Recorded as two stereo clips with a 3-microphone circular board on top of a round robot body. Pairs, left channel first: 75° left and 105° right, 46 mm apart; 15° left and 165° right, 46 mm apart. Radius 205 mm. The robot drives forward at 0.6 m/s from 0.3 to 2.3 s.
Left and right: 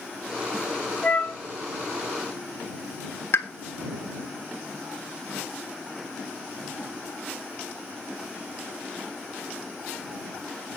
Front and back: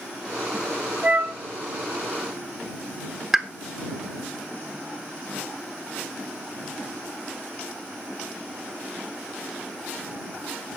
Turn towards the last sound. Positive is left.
turn(degrees=115)